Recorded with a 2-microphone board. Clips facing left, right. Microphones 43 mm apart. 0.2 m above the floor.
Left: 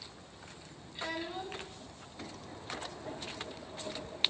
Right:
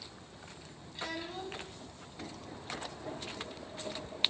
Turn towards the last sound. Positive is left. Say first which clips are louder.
# left 2 dB
turn(degrees=10)  # may be behind; listen again after turning